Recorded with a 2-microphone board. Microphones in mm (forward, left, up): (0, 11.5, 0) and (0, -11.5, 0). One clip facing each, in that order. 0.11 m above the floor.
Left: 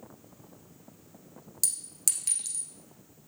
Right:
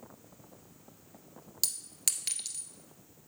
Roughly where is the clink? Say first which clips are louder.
Left 1 dB; right.